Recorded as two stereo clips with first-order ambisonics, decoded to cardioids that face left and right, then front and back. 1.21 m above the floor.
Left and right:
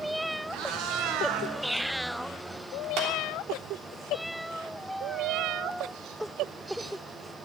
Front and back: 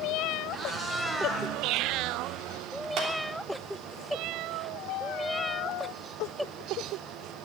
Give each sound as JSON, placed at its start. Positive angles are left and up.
{"t": 0.5, "sound": "a cat meowing", "azimuth_deg": -110, "distance_m": 2.5}
{"t": 3.0, "sound": "a clap", "azimuth_deg": -130, "distance_m": 3.0}